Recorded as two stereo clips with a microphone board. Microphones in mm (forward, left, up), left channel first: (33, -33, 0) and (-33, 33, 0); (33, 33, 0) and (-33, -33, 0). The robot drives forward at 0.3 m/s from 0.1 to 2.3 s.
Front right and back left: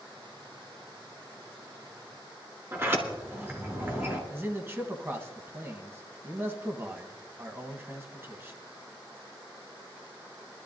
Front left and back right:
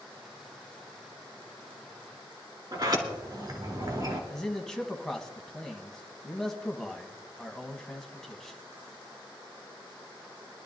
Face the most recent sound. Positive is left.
turn(degrees=125)